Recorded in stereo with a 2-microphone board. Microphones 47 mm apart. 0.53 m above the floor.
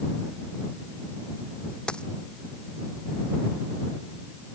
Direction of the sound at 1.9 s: 20° left (ahead or behind).